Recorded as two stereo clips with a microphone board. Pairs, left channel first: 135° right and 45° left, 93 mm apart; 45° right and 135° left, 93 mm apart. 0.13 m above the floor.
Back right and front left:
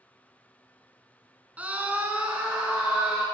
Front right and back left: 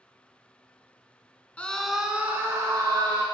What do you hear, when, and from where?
1.6 s a scream: 5° left, 1.1 m; by 3.2 s 120° left, 1.6 m